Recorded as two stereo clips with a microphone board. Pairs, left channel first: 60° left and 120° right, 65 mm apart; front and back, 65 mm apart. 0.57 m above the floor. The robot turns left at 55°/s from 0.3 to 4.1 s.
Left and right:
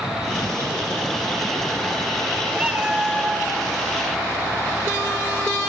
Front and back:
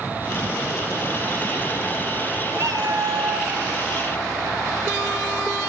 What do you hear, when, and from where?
2.5 s a cat meowing: 175° left, 0.7 m; by 3.6 s 115° left, 0.7 m